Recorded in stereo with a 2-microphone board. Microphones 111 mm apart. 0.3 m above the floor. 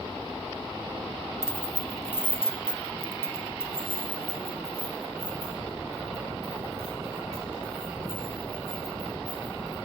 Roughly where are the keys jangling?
Left.